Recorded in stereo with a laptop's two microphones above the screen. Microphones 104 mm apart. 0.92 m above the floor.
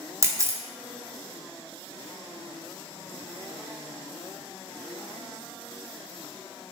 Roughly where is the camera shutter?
Right.